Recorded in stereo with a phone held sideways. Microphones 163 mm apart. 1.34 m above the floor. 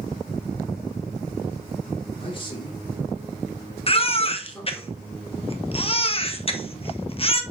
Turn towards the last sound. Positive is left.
turn(degrees=35)  # may be behind; listen again after turning